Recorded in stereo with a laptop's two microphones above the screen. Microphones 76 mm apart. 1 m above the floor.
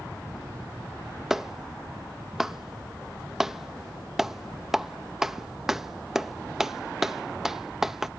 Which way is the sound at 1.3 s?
5° right (ahead or behind).